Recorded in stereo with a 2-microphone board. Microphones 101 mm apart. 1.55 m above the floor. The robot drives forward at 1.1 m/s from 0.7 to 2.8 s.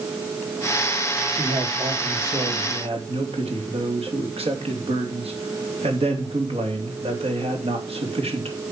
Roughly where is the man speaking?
Right.